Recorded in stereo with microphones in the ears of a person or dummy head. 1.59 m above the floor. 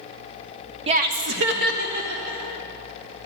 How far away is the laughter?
About 0.6 m.